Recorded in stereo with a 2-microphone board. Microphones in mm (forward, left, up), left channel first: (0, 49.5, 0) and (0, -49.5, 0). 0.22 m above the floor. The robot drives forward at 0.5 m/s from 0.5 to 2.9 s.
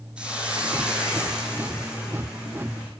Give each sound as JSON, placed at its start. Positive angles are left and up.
{"t": 0.2, "sound": "a hiss", "side_deg": -10, "distance_m": 2.0}